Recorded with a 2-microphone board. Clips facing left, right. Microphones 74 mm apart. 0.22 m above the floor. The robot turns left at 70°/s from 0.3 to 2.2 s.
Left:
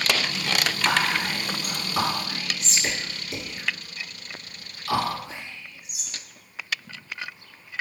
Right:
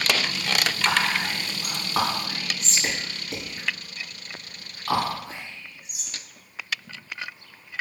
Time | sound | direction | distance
0.8 | whispering | 10° left (ahead or behind) | 2 m